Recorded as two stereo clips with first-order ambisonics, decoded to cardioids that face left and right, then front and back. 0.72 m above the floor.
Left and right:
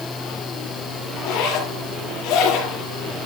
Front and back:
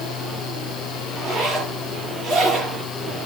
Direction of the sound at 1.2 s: 120° left.